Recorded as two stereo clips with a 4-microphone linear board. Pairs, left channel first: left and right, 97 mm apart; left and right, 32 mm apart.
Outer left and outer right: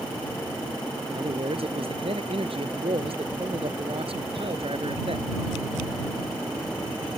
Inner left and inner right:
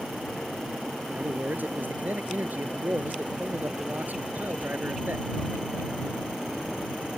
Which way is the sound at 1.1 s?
75° right (ahead or behind).